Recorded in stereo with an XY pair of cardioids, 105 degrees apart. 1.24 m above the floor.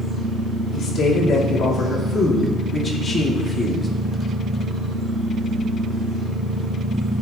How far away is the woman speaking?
About 3 m.